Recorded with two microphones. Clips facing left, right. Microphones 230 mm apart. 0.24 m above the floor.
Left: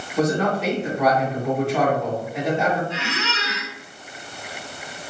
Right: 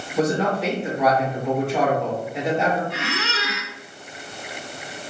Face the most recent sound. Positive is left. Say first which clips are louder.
# even
turn(degrees=-55)  # may be behind; listen again after turning